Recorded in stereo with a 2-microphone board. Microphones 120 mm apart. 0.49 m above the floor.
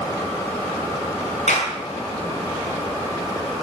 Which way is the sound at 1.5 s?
75° left (ahead or behind).